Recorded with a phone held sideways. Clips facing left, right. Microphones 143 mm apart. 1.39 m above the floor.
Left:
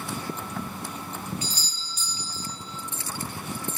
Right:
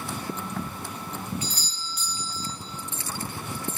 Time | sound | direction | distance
1.4 | a doorbell | 55° right (ahead or behind) | 1.2 m